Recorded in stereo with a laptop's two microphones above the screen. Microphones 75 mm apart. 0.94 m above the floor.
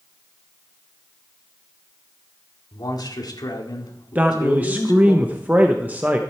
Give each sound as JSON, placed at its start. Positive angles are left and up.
{"t": 2.7, "sound": "a man speaking", "side_deg": 65, "distance_m": 1.9}
{"t": 4.2, "sound": "a man speaking", "side_deg": -20, "distance_m": 0.7}